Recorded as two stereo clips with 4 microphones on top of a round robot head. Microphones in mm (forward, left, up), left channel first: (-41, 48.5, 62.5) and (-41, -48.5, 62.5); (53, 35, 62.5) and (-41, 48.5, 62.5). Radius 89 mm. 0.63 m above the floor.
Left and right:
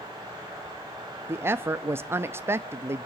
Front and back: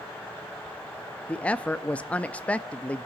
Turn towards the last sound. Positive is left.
turn(degrees=-65)